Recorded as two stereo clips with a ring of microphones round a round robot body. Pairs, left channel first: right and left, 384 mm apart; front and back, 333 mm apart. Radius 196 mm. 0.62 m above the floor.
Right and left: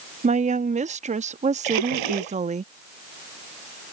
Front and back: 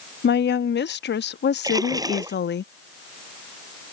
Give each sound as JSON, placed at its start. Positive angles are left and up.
{"t": 0.2, "sound": "a woman speaking", "azimuth_deg": 30}
{"t": 1.6, "sound": "a splash", "azimuth_deg": 100}